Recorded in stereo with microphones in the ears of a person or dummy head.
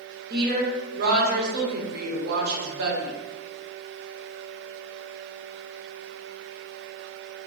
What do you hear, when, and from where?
0.3 s a woman speaking: 50° right (ahead or behind), 1.2 m